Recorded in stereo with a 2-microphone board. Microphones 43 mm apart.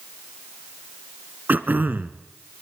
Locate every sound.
1.5 s throat clearing: 45° right (ahead or behind), 1.2 m